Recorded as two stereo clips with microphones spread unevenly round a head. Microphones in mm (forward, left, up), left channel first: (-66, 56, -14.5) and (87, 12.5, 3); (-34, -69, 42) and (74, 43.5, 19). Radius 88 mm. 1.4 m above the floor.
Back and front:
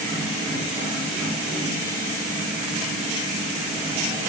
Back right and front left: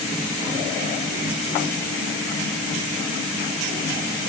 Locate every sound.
Only background noise.